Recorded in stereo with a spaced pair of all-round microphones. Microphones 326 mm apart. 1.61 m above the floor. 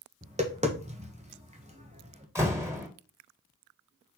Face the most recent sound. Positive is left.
turn(degrees=-10)  # may be behind; listen again after turning